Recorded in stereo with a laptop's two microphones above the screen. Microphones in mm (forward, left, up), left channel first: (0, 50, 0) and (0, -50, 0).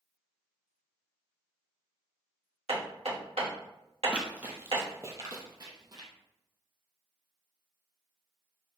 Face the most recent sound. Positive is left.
turn(degrees=-45)  # may be behind; listen again after turning